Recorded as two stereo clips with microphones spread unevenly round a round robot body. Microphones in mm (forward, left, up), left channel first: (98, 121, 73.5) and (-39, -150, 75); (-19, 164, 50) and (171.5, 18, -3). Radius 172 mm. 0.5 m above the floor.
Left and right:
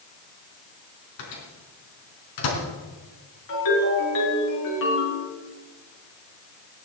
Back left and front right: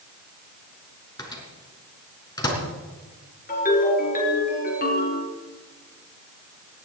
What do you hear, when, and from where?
1.2 s a microwave: 65° left, 4.5 m
3.5 s a ringtone: 90° left, 6.5 m